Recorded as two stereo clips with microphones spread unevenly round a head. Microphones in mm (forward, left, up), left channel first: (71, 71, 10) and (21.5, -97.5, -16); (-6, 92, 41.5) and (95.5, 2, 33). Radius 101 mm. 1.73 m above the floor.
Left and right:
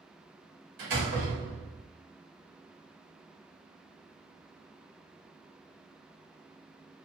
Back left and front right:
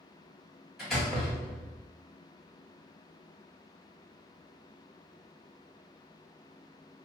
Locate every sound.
0.8 s a door slam: 130° right, 1.4 m